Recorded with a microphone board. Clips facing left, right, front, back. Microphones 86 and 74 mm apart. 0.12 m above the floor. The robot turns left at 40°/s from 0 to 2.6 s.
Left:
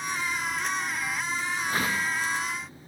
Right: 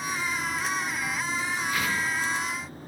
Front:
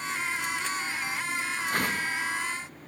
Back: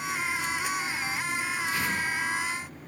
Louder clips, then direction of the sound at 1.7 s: Left 1 dB, front 2 dB; 40° left.